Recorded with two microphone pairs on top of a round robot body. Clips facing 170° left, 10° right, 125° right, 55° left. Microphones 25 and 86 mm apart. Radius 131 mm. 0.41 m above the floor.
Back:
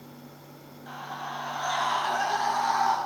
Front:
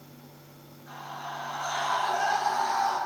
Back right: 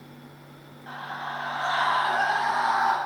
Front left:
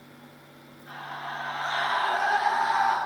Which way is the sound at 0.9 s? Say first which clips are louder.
Back 2 dB, back right 2 dB; 145° right.